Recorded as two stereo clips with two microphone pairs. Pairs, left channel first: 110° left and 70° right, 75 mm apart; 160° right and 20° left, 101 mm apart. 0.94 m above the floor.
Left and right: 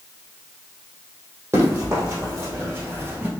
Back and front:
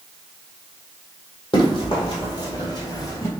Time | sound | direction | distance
1.5 | running footsteps | 120° right | 2 m